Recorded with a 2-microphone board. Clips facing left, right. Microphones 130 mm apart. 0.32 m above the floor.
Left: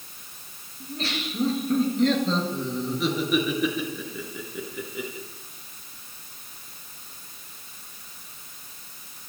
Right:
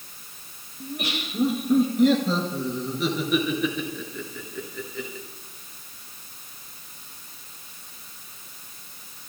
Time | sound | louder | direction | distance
0.8 | laughter | even | 15° right (ahead or behind) | 4 m